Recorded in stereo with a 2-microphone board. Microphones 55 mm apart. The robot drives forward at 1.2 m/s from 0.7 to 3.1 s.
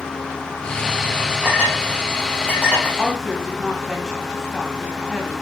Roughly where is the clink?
Centre.